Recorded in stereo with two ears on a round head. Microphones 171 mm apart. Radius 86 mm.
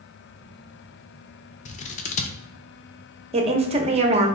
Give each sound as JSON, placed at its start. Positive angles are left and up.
{"t": 1.6, "sound": "scissors", "side_deg": 35, "distance_m": 0.5}
{"t": 3.3, "sound": "a woman speaking", "side_deg": -30, "distance_m": 0.8}